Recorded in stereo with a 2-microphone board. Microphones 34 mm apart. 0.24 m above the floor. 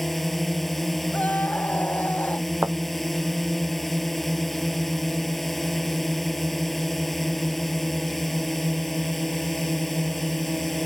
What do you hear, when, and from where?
0.0 s a drone: 5° left (ahead or behind)
1.1 s a scream: 60° left (ahead or behind)
2.6 s a thud: 75° right (ahead or behind)